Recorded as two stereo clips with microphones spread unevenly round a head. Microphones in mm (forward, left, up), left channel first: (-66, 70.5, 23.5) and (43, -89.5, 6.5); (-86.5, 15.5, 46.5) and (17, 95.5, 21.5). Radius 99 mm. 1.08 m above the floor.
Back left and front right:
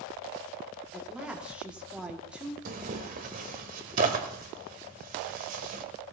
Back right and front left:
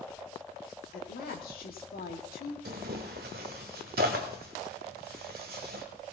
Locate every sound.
0.9 s a woman speaking: 140° right, 2 m
2.6 s tearing paper: 5° right, 1.2 m